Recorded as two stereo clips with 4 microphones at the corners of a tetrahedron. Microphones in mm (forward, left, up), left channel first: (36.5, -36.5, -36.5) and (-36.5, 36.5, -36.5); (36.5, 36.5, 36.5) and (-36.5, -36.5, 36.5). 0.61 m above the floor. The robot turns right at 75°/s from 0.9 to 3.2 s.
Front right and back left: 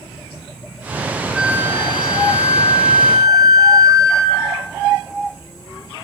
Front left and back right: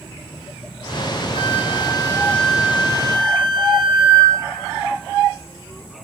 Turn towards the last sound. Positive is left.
turn(degrees=-175)